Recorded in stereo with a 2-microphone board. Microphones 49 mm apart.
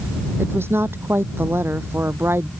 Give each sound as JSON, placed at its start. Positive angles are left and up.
{"t": 0.4, "sound": "a woman speaking", "side_deg": -55}